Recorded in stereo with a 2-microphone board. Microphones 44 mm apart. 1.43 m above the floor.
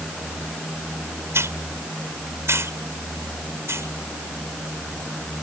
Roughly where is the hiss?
Right.